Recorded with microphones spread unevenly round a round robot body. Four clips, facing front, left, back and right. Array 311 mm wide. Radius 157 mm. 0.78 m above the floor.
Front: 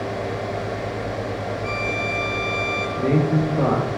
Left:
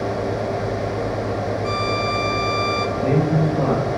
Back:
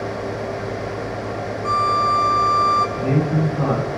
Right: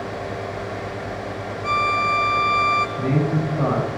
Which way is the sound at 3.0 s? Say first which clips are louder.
Left 3 dB, even; 25° left.